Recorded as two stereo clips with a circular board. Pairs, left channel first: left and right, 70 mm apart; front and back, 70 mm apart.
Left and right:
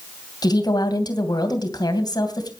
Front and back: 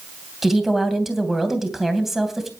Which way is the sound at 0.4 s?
95° left.